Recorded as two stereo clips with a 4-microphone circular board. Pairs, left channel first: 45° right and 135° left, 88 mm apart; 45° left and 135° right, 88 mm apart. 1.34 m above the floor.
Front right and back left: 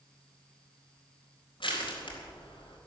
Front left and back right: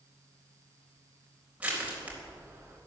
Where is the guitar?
No guitar in this recording.